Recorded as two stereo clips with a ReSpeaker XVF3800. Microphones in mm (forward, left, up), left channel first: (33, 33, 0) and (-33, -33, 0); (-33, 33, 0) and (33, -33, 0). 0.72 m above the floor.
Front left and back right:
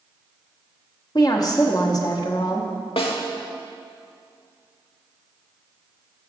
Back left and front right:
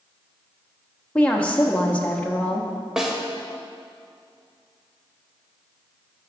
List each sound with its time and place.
1.1 s a woman speaking: 65° left, 0.8 m
3.0 s a snare drum: 40° left, 1.0 m